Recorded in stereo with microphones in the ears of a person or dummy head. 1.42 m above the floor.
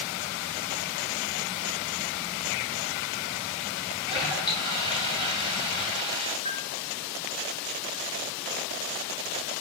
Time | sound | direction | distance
4.1 | a toilet flushing | 25° left (ahead or behind) | 7 m
6.5 | a bell | 25° left (ahead or behind) | 9 m